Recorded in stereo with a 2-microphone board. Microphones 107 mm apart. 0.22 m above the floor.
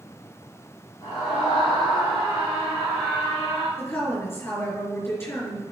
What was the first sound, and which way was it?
A scream, 55° left (ahead or behind).